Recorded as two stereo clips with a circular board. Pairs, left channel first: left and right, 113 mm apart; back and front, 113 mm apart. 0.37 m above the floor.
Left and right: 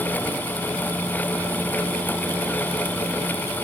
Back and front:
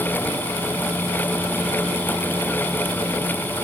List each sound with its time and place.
Only background noise.